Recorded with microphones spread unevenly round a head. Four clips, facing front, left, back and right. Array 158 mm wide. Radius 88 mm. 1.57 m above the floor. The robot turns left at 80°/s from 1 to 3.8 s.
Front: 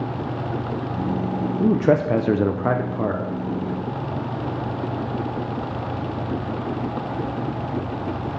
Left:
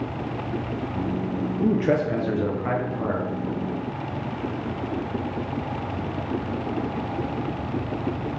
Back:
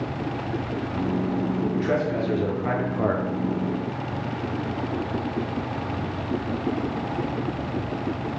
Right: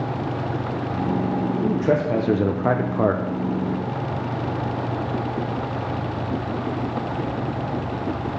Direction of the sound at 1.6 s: 35° left.